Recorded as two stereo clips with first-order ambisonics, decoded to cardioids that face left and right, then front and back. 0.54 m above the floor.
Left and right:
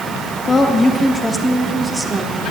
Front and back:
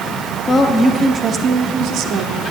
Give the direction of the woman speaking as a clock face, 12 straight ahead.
11 o'clock.